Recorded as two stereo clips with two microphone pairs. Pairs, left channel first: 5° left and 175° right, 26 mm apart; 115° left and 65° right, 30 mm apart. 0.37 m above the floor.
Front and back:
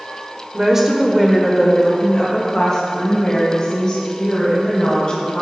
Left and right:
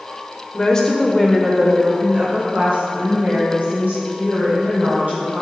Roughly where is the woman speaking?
Behind left.